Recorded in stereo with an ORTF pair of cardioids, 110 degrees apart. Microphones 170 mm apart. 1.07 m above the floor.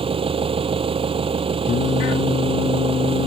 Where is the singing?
45° left.